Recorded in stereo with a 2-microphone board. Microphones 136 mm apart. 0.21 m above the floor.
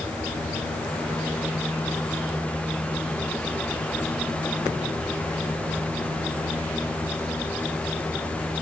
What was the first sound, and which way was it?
Only background noise.